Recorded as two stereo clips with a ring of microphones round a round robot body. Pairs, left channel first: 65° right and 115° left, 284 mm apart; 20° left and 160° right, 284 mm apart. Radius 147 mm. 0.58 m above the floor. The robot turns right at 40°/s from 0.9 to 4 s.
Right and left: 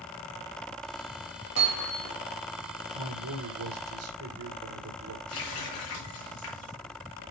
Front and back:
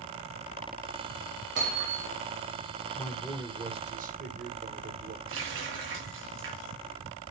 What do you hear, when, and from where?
1.6 s hammering: 150° left, 7.5 m; by 2.1 s 175° left, 7.5 m
2.9 s a man speaking: 100° left, 2.5 m; by 5.2 s 145° left, 2.5 m
5.3 s a running tap: 110° right, 8 m